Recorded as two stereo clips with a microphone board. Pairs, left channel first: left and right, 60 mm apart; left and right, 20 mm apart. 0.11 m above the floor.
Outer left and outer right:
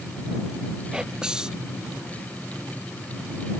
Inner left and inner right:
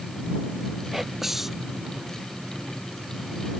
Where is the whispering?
15° right (ahead or behind).